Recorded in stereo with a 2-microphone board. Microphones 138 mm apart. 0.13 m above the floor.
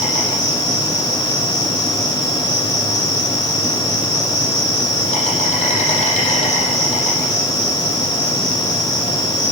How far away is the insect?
About 8 m.